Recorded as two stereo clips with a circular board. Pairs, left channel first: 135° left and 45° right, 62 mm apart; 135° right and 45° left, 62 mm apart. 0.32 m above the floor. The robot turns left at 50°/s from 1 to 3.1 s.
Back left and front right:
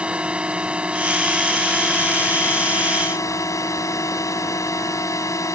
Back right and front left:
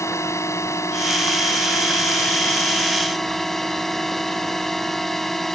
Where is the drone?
115° right; by 5.6 s 140° left.